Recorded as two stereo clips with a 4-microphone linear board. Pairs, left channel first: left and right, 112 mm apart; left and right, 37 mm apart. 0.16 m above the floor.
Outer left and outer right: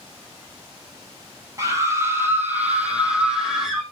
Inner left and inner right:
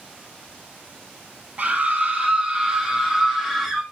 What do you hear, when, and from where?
1.6 s a scream: 30° right (ahead or behind), 3.5 m; by 3.8 s 5° right (ahead or behind), 5 m